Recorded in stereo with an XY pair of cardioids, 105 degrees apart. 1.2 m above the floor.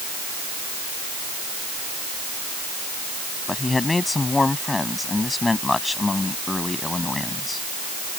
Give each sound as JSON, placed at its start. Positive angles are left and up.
{"t": 3.5, "sound": "a man speaking", "azimuth_deg": 20}